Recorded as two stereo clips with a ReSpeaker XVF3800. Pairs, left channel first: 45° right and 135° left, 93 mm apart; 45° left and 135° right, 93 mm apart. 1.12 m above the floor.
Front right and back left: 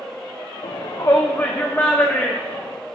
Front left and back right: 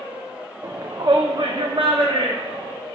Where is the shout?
80° right, 0.5 m; by 2.7 s 120° right, 1.5 m.